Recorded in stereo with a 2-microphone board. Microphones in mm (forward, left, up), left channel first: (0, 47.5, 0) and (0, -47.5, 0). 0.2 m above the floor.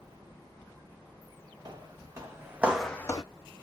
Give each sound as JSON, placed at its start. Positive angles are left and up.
{"t": 1.6, "sound": "footsteps", "side_deg": -45, "distance_m": 1.4}